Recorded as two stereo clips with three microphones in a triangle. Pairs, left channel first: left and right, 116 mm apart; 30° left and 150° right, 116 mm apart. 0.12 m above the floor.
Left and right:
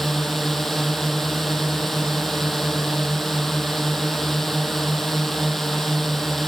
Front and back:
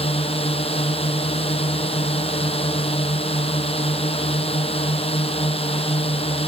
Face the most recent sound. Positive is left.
turn(degrees=0)